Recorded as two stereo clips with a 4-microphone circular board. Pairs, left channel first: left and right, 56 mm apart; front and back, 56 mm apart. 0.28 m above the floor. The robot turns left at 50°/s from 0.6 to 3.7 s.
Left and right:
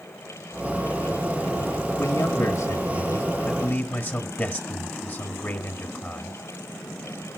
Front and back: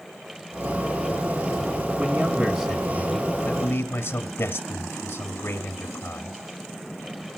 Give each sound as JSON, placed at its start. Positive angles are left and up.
{"t": 2.0, "sound": "a man speaking", "azimuth_deg": 120, "distance_m": 1.6}